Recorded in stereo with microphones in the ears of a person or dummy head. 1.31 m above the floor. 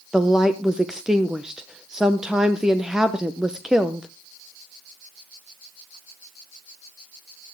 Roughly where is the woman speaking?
Centre.